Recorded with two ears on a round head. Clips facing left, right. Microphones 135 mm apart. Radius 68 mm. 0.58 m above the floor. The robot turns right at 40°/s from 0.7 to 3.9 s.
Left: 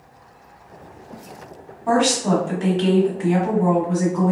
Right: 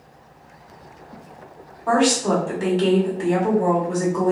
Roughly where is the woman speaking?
Behind.